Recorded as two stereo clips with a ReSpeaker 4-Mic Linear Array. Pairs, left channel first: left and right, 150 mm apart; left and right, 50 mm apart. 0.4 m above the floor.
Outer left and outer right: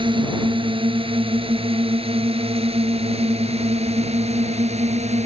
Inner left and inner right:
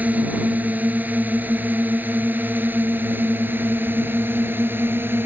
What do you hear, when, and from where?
0.0 s a drone: 30° right (ahead or behind); by 5.3 s 45° right (ahead or behind)